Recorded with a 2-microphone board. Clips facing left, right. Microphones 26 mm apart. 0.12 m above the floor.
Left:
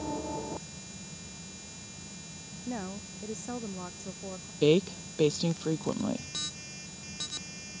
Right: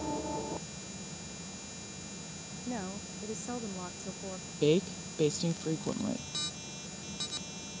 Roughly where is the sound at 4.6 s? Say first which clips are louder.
Left 3 dB; centre.